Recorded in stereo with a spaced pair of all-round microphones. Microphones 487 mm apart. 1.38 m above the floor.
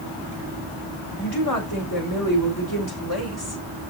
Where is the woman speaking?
45° left (ahead or behind), 5 m.